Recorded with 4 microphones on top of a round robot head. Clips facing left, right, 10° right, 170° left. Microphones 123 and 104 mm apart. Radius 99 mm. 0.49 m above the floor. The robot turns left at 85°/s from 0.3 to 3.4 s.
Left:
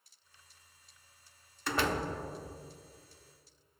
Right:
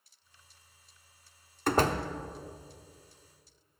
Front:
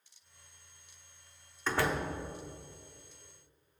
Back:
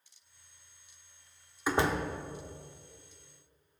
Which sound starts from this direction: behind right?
A door slam, at 1.7 s.